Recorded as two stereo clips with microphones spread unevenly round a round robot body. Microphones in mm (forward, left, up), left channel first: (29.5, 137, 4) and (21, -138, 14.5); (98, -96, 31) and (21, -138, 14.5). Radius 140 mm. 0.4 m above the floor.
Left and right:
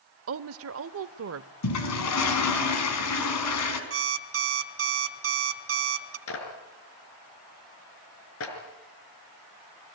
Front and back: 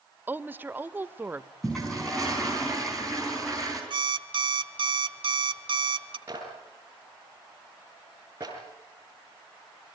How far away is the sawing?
No sawing in this recording.